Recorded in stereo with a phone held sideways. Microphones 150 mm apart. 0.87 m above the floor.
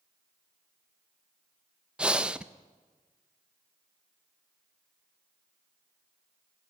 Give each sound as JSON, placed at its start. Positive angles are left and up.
{"t": 2.0, "sound": "breathing", "side_deg": -5, "distance_m": 0.5}